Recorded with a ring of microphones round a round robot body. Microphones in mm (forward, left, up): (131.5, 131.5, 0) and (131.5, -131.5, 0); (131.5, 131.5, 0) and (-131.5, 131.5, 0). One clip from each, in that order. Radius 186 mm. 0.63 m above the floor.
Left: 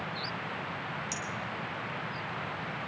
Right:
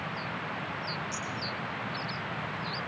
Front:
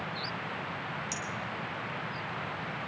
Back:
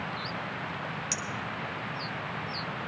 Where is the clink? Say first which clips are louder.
Even, back 3 dB; 140° left, 1.7 m.